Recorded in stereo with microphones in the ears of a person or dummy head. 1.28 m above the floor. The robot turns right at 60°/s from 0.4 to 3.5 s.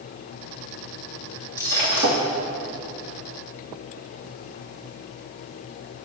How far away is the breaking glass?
About 2 m.